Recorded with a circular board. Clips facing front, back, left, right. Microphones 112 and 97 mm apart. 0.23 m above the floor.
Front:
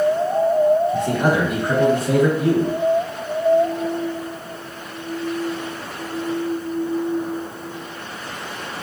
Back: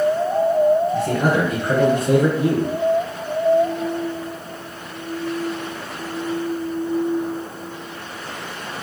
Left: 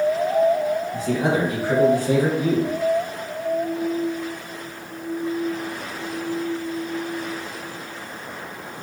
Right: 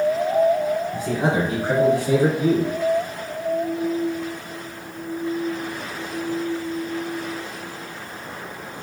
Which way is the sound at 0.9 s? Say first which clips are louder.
Even, even; 65° right.